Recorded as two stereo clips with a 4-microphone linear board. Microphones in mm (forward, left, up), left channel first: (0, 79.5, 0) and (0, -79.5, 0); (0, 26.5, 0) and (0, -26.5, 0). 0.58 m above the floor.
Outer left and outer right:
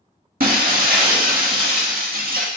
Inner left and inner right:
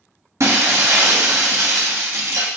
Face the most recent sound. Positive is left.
turn(degrees=-65)  # may be behind; listen again after turning